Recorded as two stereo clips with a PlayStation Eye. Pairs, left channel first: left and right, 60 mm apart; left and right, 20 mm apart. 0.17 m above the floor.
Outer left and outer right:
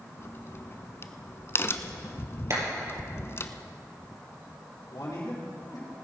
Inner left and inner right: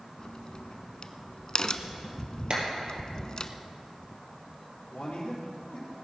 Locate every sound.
0.2 s a crack: 40° left (ahead or behind), 0.6 m
2.5 s a clap: 50° right (ahead or behind), 3.5 m
4.9 s a man speaking: 70° left (ahead or behind), 4.5 m